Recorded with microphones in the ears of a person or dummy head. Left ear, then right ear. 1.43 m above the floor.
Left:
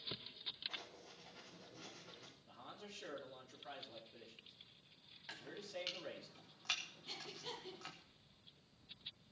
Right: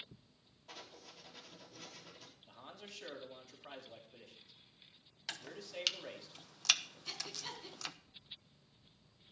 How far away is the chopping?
About 0.9 m.